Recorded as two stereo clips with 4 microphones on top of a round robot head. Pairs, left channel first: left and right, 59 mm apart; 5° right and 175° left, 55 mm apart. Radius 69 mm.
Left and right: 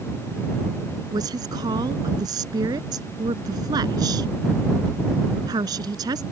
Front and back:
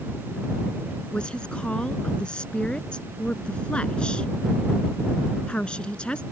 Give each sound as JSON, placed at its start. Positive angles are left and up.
{"t": 1.1, "sound": "a woman speaking", "azimuth_deg": -85}